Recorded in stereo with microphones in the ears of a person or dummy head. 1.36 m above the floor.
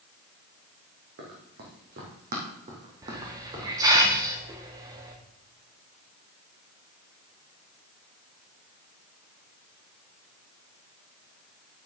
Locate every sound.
1.2 s running footsteps: 55° right (ahead or behind), 3 m; by 4.0 s 10° right (ahead or behind), 2.5 m
3.0 s a hiss: 25° right (ahead or behind), 1.2 m